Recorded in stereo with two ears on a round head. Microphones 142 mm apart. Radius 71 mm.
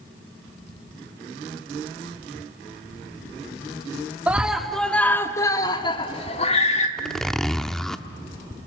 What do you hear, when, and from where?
4.3 s a scream: 10° right (ahead or behind), 1.2 m; by 6.9 s 45° left (ahead or behind), 1.5 m
7.0 s a zipper: 5° left (ahead or behind), 0.7 m